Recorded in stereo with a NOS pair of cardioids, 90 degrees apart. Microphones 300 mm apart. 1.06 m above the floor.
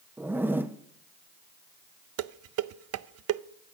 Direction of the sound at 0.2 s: 5° right.